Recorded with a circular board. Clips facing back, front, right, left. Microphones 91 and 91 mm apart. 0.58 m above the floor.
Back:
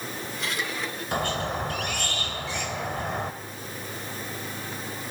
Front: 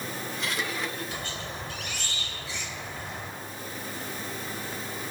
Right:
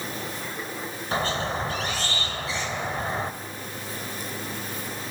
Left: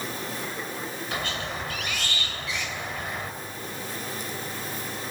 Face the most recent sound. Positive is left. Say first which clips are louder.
# back 9 dB, right 8 dB
turn(degrees=-145)